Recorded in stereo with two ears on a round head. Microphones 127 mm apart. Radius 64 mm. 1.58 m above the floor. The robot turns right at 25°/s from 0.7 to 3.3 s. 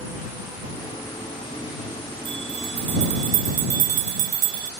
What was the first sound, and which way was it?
A bell, 35° right (ahead or behind).